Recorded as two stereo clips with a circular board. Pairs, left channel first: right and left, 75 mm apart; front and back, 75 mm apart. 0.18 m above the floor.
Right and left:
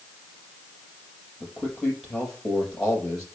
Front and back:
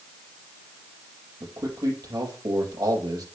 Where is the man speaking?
170° right, 5 m.